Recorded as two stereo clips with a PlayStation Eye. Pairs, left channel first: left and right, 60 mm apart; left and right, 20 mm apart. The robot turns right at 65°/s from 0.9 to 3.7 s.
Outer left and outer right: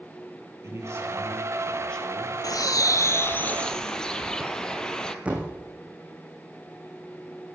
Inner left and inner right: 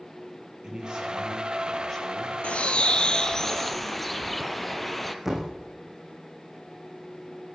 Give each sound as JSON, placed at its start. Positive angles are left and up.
{"t": 0.6, "sound": "a man speaking", "azimuth_deg": -50, "distance_m": 5.0}
{"t": 2.4, "sound": "a bird", "azimuth_deg": 85, "distance_m": 1.0}
{"t": 5.2, "sound": "a thud", "side_deg": -20, "distance_m": 2.5}